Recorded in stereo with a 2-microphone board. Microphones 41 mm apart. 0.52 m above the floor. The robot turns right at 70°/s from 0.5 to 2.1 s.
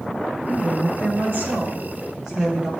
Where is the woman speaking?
130° right, 2.5 m; by 2.7 s 15° right, 2.5 m.